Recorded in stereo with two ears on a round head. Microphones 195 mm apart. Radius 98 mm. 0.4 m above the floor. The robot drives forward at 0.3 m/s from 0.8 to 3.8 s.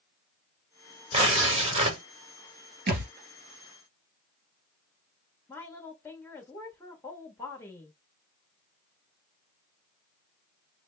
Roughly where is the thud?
Right.